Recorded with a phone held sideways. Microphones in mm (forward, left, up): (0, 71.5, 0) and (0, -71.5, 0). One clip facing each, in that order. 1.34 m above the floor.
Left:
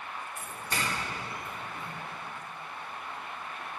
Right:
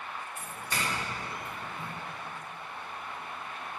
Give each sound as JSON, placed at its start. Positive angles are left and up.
{"t": 0.4, "sound": "a doorbell", "side_deg": 45, "distance_m": 5.5}